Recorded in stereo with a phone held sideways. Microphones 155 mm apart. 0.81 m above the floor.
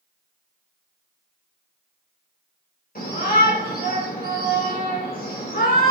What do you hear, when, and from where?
3.0 s a shout: 70° left (ahead or behind), 4 m